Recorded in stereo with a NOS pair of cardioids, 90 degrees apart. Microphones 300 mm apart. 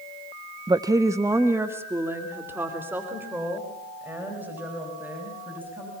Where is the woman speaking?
15° right, 0.6 m; by 5.9 s 5° right, 8.5 m.